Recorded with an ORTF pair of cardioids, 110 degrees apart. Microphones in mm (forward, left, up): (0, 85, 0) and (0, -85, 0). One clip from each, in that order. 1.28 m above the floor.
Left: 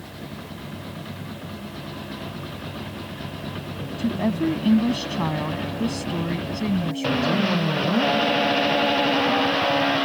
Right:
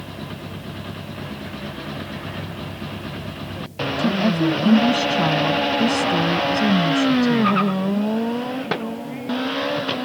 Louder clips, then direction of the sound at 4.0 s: Right 4 dB; 15° right.